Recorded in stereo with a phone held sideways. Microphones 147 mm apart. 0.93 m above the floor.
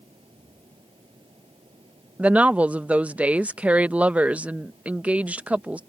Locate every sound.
0.0 s a fan: 35° right (ahead or behind)
2.2 s a woman speaking: 10° right (ahead or behind)